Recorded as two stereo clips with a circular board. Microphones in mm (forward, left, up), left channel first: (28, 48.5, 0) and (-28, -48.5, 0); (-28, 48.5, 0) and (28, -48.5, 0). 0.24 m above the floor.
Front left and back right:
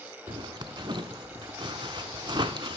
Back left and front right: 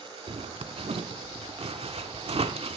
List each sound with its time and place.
0.3 s a zipper: 75° right, 0.7 m